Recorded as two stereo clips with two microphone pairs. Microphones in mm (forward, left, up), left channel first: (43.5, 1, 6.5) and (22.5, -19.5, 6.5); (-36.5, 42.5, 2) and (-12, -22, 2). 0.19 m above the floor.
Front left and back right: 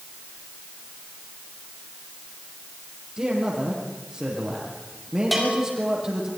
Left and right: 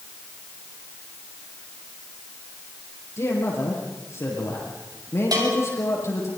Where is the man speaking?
155° left, 7.5 m.